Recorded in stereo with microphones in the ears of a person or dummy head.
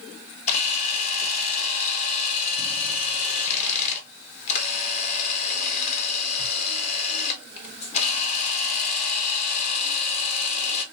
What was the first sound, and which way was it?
A camera shutter, 40° left (ahead or behind).